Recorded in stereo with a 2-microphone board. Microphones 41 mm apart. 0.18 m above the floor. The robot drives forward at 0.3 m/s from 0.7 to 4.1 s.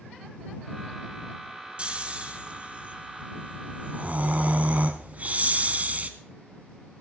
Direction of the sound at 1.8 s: 30° right (ahead or behind).